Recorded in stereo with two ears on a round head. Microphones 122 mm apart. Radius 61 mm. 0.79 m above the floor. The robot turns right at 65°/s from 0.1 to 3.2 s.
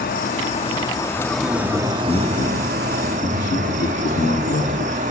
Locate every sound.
0.0 s an insect: 95° left, 1.1 m; by 5.1 s 65° right, 1.1 m
1.4 s a man speaking: 25° right, 1.9 m; by 5.0 s 90° left, 1.9 m